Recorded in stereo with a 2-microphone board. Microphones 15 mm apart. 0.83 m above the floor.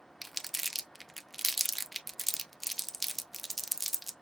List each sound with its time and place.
0.2 s crumpling: 5° left (ahead or behind), 0.6 m